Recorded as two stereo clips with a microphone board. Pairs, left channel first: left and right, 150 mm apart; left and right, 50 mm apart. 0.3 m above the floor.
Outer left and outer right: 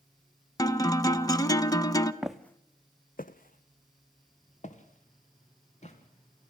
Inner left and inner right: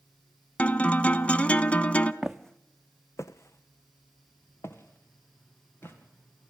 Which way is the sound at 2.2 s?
5° right (ahead or behind).